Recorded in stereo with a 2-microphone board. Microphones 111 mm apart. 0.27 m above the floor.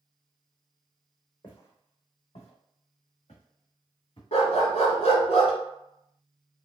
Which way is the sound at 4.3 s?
80° left.